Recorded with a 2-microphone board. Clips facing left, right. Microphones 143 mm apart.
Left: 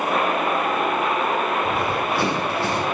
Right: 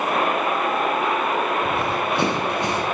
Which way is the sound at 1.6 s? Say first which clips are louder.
Even; 25° right (ahead or behind).